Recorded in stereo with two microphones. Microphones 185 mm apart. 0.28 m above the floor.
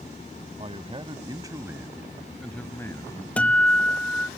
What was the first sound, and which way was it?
A man speaking, 35° right (ahead or behind).